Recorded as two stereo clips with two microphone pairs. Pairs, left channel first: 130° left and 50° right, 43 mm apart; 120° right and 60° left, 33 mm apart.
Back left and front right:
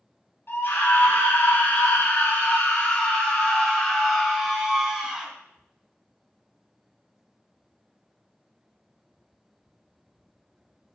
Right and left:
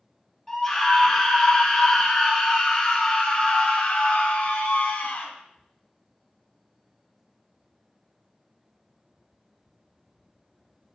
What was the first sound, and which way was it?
A scream, 165° left.